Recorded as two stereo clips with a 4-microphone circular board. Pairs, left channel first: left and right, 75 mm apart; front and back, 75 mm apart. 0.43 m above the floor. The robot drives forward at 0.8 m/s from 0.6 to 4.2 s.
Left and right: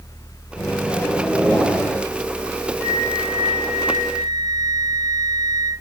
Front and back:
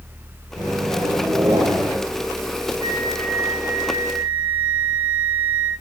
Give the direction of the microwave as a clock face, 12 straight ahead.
7 o'clock.